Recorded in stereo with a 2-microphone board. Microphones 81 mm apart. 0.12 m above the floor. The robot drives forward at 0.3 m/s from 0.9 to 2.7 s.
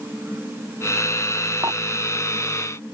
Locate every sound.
1.6 s dishes clattering: 50° right (ahead or behind)